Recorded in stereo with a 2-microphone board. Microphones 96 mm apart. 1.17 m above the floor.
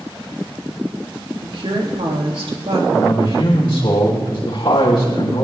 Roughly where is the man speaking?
Left.